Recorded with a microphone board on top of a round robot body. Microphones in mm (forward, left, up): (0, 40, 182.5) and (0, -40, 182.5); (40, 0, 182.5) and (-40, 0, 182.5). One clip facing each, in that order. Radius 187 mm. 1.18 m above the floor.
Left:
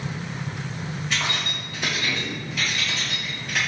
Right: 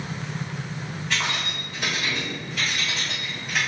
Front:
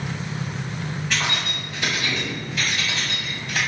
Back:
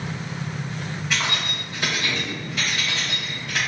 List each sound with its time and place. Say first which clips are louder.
1.1 s keys jangling: right 1 dB, even; 100° right, 1.7 m; by 3.6 s 165° right, 1.5 m